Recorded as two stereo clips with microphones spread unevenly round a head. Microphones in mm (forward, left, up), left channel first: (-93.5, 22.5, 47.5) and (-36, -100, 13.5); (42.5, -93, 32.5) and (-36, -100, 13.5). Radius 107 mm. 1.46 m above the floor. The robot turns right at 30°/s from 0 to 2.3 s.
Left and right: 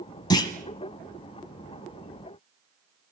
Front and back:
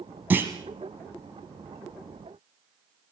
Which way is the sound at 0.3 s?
100° left.